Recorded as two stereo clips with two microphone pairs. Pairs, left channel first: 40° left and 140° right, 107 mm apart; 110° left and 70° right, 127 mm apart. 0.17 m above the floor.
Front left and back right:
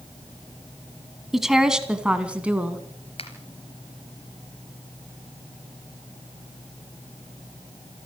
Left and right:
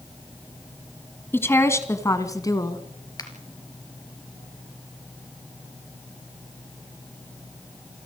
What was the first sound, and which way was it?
A woman speaking, 135° left.